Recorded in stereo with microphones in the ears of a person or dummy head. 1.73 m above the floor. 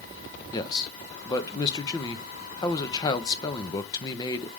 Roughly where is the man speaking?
Centre.